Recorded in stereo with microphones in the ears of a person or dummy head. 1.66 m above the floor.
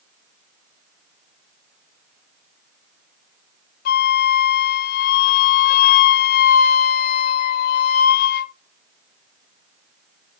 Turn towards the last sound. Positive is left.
turn(degrees=55)  # may be behind; listen again after turning